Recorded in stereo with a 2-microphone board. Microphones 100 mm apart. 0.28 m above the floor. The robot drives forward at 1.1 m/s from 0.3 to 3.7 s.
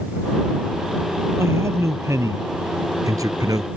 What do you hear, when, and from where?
1.4 s a man speaking: 25° right (ahead or behind); by 3.7 s 40° right (ahead or behind)